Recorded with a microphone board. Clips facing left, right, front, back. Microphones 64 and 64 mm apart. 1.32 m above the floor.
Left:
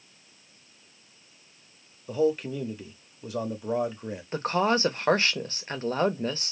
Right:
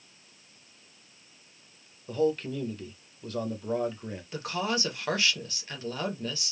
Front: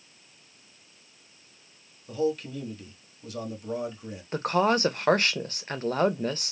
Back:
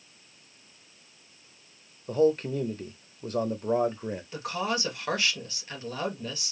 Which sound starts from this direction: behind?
A man speaking, at 2.1 s.